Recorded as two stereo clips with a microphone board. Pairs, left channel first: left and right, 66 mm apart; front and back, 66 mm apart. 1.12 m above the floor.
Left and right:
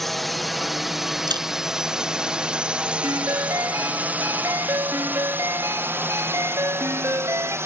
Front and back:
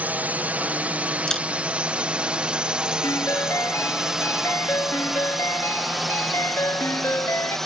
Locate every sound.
0.0 s a drone: 175° left; by 7.7 s 80° right
1.3 s a camera shutter: 80° right
3.0 s a ringtone: 45° right